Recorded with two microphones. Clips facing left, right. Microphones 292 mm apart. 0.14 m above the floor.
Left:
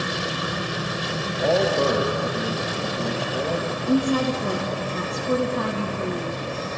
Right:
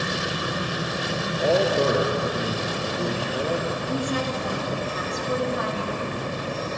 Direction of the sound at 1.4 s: 10° right (ahead or behind).